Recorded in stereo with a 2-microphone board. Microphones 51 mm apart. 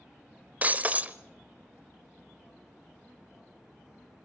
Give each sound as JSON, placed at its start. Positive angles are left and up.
{"t": 0.6, "sound": "breaking glass", "side_deg": -30, "distance_m": 0.9}